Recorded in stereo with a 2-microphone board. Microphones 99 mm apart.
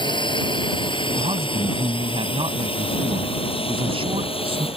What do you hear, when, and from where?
0.0 s a drone: 55° left (ahead or behind); by 4.8 s 70° left (ahead or behind)
1.2 s a man speaking: 70° right (ahead or behind)